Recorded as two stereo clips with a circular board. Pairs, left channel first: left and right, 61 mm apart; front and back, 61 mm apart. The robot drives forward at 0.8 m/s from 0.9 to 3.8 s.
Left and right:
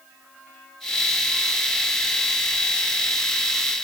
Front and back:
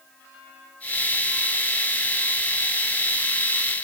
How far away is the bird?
I don't hear a bird.